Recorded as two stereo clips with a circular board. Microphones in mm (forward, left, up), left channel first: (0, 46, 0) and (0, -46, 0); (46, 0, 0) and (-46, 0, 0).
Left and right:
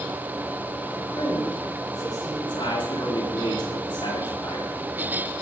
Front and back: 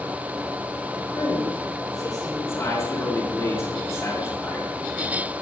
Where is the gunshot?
No gunshot in this recording.